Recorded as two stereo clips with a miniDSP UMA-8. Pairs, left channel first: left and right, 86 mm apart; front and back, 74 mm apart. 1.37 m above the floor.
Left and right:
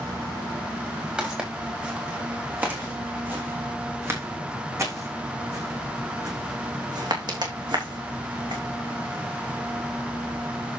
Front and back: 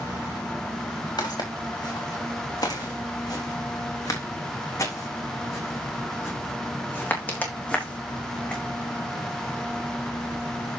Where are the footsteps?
15° right, 4.5 m; by 8.6 s 75° right, 3.5 m.